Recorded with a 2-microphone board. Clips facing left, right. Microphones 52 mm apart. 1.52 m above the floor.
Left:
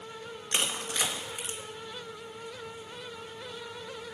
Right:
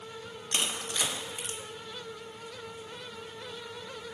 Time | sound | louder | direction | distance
0.5 | crushing | left 1 dB | 25° left (ahead or behind) | 1.9 m